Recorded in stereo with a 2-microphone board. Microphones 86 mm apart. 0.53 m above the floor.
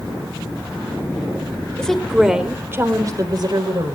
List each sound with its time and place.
1.8 s a woman speaking: 10° left (ahead or behind), 1.8 m; by 4.0 s 60° right (ahead or behind), 2.5 m